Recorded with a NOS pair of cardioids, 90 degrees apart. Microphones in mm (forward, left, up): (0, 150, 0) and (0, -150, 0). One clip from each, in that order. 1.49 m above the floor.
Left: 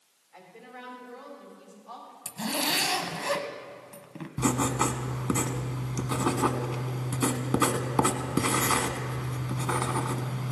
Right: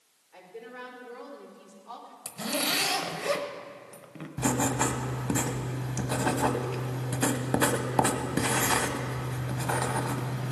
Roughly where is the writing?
Ahead.